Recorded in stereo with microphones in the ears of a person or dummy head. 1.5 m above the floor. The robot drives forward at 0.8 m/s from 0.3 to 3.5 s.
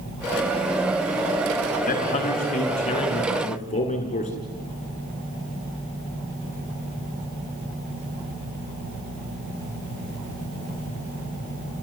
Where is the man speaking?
35° left (ahead or behind), 4.5 m; by 4.3 s 30° left (ahead or behind), 5.5 m.